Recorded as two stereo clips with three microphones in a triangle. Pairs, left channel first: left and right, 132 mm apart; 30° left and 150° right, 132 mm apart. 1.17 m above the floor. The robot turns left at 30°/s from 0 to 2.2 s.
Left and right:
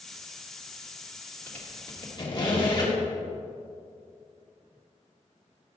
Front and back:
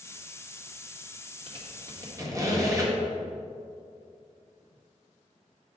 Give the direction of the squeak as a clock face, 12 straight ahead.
6 o'clock.